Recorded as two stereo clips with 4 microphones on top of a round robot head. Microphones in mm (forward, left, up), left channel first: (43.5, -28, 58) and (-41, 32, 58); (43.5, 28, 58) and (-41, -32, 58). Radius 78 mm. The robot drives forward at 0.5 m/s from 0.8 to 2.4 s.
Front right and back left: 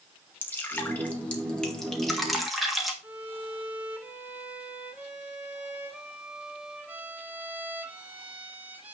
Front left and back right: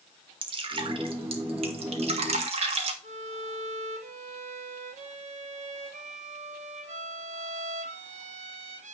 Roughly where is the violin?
Behind right.